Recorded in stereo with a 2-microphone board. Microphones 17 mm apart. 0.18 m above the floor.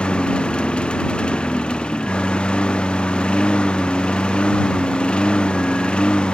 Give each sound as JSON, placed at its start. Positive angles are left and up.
{"t": 0.0, "sound": "a lawn mower", "side_deg": 80}